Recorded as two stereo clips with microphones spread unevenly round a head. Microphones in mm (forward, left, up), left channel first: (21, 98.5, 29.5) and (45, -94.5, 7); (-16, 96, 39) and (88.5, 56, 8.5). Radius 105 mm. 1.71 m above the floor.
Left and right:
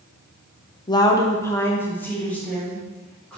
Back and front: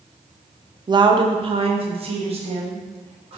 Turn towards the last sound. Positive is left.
turn(degrees=15)